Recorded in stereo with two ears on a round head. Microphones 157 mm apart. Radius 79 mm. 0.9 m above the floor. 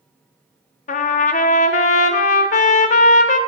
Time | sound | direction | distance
0.9 | a trumpet | 45° left (ahead or behind) | 0.6 m